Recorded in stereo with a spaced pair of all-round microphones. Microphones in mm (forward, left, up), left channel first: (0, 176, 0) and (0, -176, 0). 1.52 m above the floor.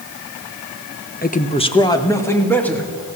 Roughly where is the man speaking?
Left.